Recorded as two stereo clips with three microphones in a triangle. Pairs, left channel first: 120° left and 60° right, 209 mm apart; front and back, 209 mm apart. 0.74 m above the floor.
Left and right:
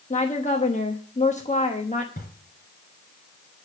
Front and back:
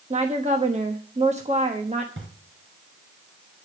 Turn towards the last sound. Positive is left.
turn(degrees=165)